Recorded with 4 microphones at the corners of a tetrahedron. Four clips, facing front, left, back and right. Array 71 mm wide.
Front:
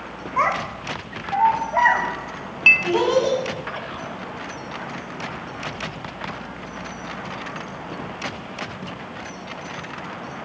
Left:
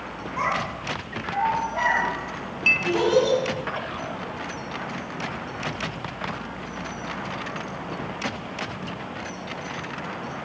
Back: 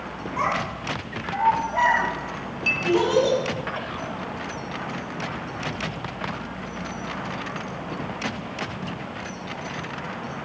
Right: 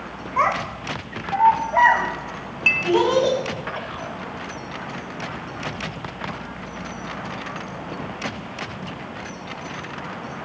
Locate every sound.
0.4 s a child speaking: 45° right, 3 m; by 3.4 s 55° right, 7.5 m
2.7 s a clink: 20° right, 0.9 m